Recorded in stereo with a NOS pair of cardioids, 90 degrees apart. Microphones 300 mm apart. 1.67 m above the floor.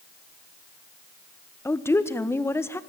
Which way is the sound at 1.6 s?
10° left.